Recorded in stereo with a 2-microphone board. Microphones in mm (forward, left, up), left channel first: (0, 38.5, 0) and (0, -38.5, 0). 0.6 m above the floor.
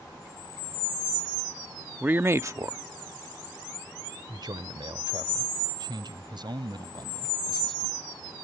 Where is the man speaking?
20° right (ahead or behind); by 8.3 s 65° right (ahead or behind).